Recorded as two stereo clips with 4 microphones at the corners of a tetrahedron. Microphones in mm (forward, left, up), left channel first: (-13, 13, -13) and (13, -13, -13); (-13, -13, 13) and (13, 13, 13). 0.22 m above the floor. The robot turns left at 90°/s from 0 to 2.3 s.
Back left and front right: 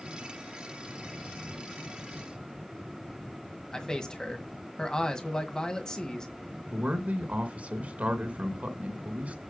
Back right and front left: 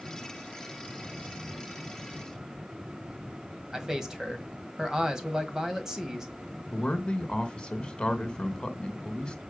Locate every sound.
3.7 s a man speaking: 95° left, 1.6 m
6.7 s a man speaking: 70° right, 2 m